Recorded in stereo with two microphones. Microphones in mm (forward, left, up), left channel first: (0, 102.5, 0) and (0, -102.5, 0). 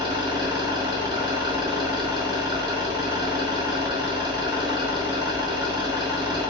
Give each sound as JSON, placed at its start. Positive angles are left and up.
{"t": 0.0, "sound": "an engine running", "side_deg": -20, "distance_m": 1.0}